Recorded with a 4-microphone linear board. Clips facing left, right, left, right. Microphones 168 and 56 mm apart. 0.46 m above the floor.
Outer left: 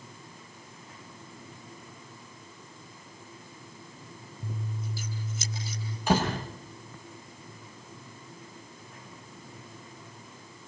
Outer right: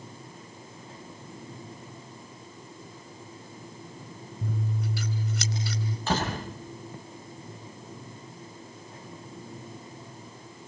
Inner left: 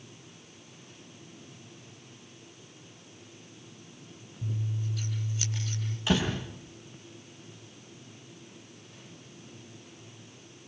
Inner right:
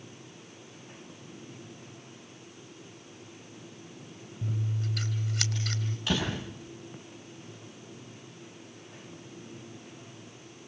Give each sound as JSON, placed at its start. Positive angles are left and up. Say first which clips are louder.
{"t": 4.4, "sound": "scissors", "louder": "outer right 6 dB, inner right 1 dB", "side_deg": -80, "distance_m": 4.5}
{"t": 6.1, "sound": "a door slam", "louder": "outer left 3 dB, inner left 3 dB", "side_deg": 15, "distance_m": 9.5}